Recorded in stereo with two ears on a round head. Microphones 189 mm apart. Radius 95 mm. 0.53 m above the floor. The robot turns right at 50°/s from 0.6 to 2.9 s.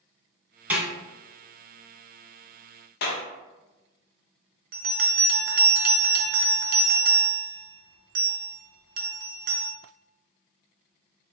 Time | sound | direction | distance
0.7 | a snare drum | 10° right (ahead or behind) | 1.3 m
3.0 | a clap | 50° left (ahead or behind) | 0.7 m
4.7 | a bell | 45° right (ahead or behind) | 0.6 m